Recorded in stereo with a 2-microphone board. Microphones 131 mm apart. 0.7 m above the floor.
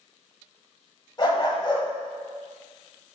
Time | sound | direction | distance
1.2 | a dog barking | 35° left (ahead or behind) | 1.8 m